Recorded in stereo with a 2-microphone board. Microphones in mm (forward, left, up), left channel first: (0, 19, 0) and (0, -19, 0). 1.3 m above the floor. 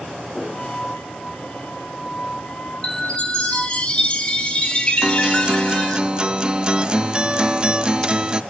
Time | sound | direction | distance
0.5 | a flute | 30° left (ahead or behind) | 7.5 m
2.8 | a chime | 25° left (ahead or behind) | 2.5 m
5.0 | a guitar | 25° right (ahead or behind) | 0.6 m